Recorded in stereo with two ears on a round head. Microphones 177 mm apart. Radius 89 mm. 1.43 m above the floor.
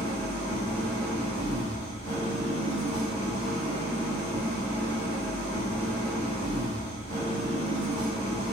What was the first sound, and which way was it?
An engine running, 70° right (ahead or behind).